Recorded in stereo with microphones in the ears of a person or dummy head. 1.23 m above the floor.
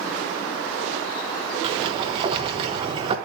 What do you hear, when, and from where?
1.6 s a sliding door: 30° right (ahead or behind), 1.0 m